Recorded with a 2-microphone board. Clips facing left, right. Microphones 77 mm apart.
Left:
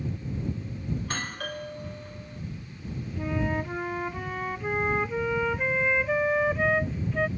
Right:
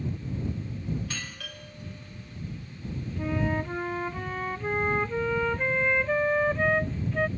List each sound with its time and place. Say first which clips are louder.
1.0 s a doorbell: left 4 dB; 50° left (ahead or behind)
3.2 s a flute: even; centre (ahead or behind)